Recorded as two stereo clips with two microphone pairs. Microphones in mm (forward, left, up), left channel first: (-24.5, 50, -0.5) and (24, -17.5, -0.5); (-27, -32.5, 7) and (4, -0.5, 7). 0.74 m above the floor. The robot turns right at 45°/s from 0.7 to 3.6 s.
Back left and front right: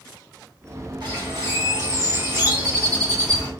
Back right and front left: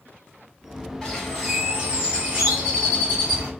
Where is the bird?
55° right, 1.9 m; by 3.5 s 55° left, 1.9 m.